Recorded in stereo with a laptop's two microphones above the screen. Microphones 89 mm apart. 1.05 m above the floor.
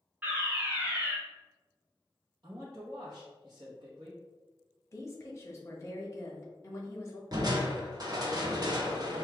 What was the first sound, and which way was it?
A fire alarm, 20° right (ahead or behind).